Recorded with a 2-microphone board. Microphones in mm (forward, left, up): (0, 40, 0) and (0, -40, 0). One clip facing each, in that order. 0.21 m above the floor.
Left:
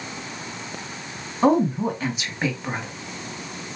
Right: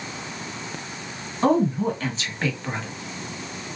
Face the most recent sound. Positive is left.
turn(degrees=15)  # may be behind; listen again after turning